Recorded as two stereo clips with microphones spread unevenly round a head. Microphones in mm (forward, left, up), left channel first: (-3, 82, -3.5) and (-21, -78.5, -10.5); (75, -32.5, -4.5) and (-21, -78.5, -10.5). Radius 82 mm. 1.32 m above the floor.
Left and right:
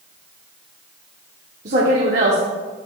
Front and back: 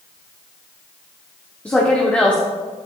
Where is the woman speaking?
55° right, 1.0 m.